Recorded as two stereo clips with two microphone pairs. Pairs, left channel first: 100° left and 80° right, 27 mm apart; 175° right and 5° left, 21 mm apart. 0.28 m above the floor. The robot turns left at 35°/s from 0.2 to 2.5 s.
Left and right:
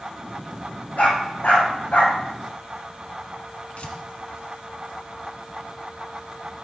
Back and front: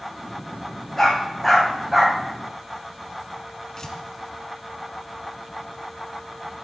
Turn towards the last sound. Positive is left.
turn(degrees=125)